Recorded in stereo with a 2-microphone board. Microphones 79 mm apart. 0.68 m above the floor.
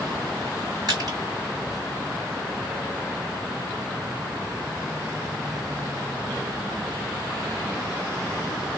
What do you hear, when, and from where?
0.9 s crushing: 55° right (ahead or behind), 1.8 m